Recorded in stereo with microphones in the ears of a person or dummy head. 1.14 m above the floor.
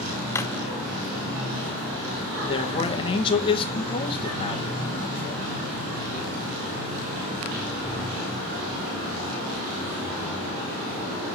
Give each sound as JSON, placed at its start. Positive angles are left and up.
{"t": 0.3, "sound": "a drawer", "side_deg": 15, "distance_m": 0.5}
{"t": 2.4, "sound": "a man speaking", "side_deg": 30, "distance_m": 1.4}